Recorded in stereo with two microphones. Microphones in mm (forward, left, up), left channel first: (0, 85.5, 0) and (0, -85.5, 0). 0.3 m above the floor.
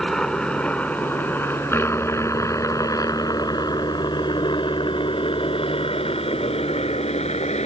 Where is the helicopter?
5° left (ahead or behind); by 7.7 s 40° left (ahead or behind).